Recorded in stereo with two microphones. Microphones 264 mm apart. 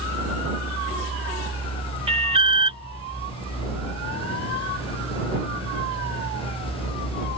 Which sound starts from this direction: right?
An alarm, at 2.1 s.